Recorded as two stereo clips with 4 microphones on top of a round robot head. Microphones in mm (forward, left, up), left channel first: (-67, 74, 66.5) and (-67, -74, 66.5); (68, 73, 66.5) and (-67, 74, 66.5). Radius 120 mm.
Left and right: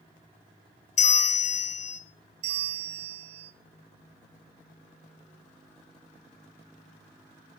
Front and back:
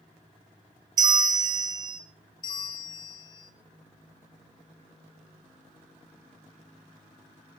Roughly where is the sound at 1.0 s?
Behind left.